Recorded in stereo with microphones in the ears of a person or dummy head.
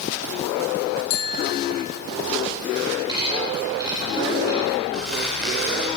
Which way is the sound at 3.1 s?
15° right (ahead or behind).